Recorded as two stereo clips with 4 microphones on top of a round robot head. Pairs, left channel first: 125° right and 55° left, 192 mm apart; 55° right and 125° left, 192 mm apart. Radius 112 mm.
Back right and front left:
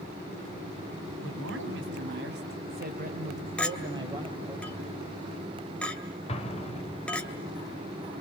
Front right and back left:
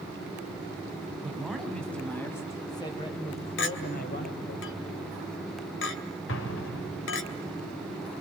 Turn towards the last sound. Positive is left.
turn(degrees=-65)